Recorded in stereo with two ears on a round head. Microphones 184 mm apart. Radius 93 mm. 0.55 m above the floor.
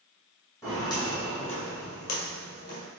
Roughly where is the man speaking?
I don't hear a man speaking.